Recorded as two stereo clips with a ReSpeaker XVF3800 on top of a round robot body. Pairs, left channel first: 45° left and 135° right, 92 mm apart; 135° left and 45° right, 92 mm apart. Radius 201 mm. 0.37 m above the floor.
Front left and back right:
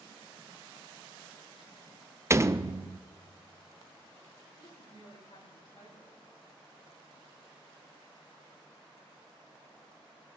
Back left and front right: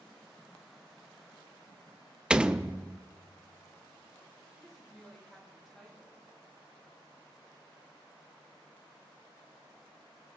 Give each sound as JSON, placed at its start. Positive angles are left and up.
{"t": 2.3, "sound": "a door slam", "azimuth_deg": -115, "distance_m": 0.7}
{"t": 4.6, "sound": "a woman speaking", "azimuth_deg": 50, "distance_m": 7.0}